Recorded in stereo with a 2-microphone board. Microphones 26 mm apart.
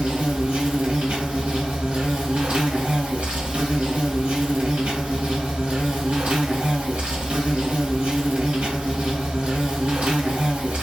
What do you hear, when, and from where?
0.0 s an insect: 60° right (ahead or behind), 1.1 m